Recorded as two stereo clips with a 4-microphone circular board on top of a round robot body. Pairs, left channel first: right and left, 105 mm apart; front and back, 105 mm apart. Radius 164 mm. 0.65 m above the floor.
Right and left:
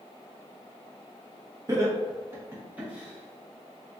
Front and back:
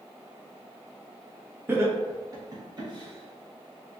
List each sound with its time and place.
1.7 s laughter: 125° left, 1.3 m; by 4.0 s straight behind, 1.8 m